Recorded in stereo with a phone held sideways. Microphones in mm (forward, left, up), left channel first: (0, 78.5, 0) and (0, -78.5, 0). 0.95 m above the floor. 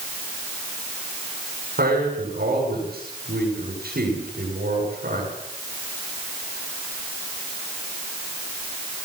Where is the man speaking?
75° right (ahead or behind), 8.5 m.